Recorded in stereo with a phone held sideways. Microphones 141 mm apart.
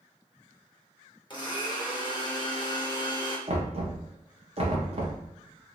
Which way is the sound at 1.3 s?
35° left (ahead or behind).